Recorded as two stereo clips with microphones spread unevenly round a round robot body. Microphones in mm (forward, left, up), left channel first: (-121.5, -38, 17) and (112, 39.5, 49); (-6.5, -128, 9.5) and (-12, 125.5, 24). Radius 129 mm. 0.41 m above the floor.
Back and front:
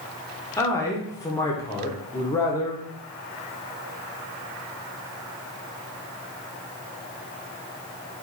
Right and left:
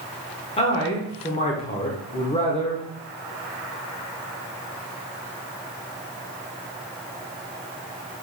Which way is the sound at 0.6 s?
115° right.